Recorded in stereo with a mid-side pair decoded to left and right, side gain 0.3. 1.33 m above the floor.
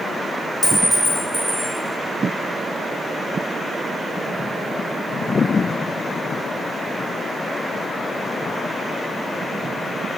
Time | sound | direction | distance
0.6 | a clink | 30° left | 1.3 m